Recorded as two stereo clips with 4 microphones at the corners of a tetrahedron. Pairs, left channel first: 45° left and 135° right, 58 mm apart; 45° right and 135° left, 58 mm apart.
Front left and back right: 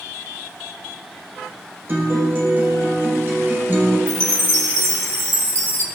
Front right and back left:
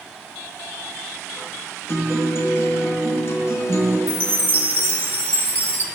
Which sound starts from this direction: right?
A guitar, at 1.9 s.